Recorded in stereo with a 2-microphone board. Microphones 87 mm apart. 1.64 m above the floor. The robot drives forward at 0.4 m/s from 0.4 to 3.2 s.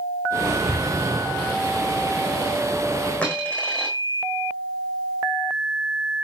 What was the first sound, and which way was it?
An explosion, centre (ahead or behind).